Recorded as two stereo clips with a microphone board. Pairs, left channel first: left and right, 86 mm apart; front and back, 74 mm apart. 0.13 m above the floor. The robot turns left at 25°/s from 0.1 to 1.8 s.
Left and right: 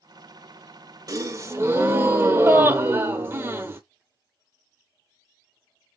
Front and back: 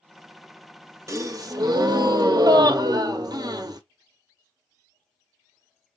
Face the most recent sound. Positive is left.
turn(degrees=-150)